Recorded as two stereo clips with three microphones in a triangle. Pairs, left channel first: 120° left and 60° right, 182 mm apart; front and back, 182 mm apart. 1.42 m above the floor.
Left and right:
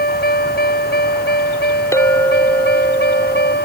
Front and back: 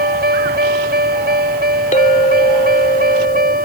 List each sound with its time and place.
0.0 s a vehicle: 150° left; by 3.6 s 145° left
1.9 s a clink: 45° left